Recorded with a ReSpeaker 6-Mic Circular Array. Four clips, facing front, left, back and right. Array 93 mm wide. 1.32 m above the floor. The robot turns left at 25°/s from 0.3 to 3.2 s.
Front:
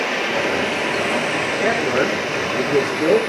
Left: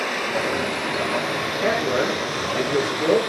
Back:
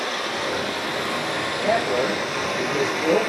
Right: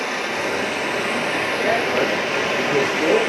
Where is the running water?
10° right, 2 m; by 3.3 s 80° right, 2 m.